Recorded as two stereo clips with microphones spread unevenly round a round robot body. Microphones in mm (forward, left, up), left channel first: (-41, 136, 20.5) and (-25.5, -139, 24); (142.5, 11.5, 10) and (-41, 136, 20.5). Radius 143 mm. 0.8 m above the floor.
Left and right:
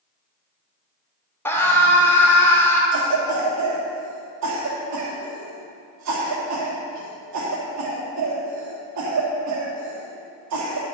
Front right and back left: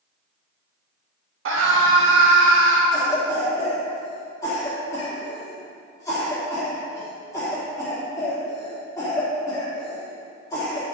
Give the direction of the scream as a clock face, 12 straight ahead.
6 o'clock.